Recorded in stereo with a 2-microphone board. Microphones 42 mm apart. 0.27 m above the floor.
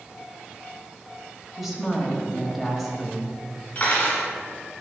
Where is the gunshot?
No gunshot in this recording.